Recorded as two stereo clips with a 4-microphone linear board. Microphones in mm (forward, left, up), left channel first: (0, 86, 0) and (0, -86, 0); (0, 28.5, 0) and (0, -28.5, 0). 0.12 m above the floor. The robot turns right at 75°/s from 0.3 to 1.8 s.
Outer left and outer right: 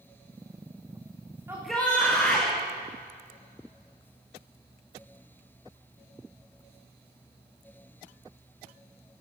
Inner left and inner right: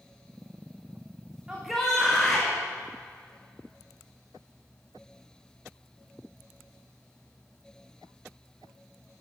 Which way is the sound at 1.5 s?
15° right (ahead or behind).